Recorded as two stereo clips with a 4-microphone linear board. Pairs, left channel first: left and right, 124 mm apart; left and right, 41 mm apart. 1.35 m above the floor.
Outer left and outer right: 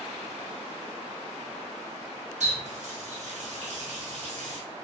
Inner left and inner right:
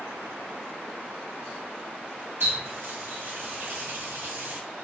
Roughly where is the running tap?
Right.